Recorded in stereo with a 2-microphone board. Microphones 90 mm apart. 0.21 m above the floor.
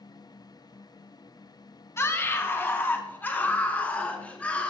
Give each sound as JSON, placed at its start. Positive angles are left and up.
{"t": 2.0, "sound": "a scream", "side_deg": 30, "distance_m": 1.6}